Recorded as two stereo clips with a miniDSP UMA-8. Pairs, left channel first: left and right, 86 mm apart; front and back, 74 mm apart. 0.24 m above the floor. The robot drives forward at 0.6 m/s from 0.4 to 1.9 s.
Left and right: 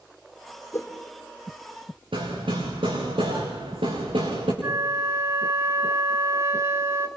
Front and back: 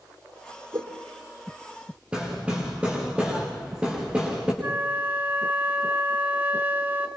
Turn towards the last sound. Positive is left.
turn(degrees=-130)